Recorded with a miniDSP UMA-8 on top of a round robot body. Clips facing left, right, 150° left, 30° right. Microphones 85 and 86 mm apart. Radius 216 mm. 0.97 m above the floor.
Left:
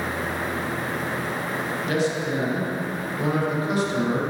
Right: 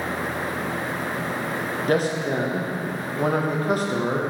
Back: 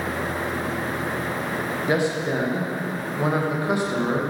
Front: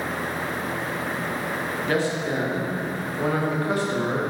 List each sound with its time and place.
1.9 s a man speaking: 135° right, 1.1 m